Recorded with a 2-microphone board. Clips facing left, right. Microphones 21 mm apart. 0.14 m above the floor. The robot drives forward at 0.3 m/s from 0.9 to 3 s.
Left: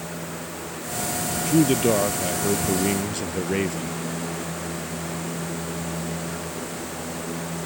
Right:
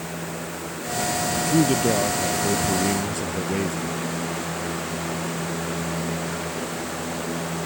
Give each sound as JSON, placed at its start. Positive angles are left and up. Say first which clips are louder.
{"t": 1.5, "sound": "a man speaking", "louder": "left 2 dB", "side_deg": 15}